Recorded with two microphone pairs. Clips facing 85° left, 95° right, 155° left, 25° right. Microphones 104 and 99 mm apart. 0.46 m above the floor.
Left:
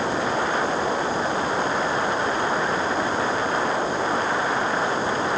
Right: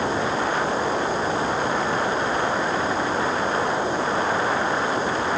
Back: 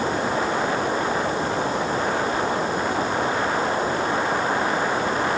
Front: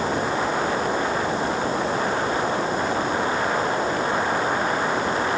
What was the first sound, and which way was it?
Only background noise.